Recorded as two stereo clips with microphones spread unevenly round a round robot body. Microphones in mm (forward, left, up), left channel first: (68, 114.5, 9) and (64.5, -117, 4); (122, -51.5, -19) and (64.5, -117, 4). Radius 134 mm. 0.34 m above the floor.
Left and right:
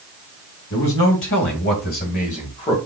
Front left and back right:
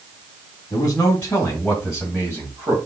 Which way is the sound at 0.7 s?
105° left.